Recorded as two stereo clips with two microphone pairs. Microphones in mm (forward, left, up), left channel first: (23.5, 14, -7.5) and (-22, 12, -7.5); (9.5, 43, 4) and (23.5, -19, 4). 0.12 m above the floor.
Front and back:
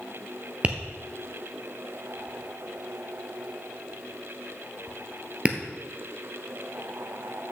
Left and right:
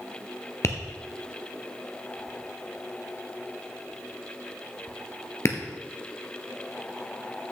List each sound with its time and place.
0.6 s tapping: 125° left, 1.0 m